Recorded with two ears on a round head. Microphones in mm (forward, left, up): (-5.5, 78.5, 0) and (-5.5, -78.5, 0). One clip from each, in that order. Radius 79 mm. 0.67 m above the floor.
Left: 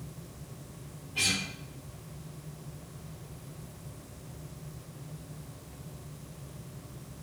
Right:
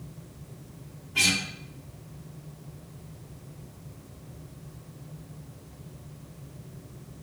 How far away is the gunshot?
No gunshot in this recording.